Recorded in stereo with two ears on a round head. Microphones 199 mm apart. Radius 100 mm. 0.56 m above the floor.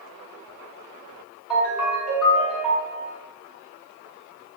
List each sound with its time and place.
1.5 s a ringtone: centre (ahead or behind), 1.6 m